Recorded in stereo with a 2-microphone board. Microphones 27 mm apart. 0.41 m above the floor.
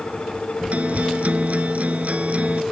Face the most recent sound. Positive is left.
turn(degrees=-60)  # may be behind; listen again after turning